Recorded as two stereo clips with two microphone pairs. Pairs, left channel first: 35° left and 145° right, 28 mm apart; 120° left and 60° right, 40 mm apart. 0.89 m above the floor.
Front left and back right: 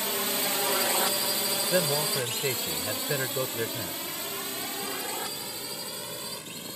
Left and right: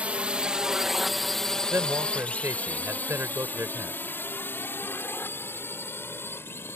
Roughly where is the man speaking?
Right.